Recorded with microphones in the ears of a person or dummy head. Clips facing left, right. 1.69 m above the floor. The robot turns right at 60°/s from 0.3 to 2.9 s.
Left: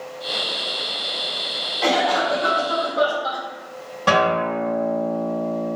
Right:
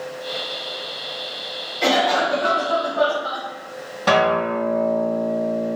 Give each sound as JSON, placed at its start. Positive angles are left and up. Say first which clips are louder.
{"t": 1.8, "sound": "a cough", "louder": "right 1 dB", "azimuth_deg": -25, "distance_m": 1.0}
{"t": 4.1, "sound": "a guitar", "louder": "right 1 dB", "side_deg": 5, "distance_m": 1.1}